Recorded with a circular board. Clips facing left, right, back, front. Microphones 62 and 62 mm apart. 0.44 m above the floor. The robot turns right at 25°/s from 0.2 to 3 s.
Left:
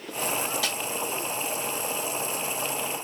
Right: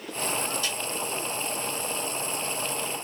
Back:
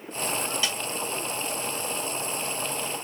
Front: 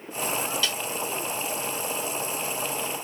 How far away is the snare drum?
About 1.4 m.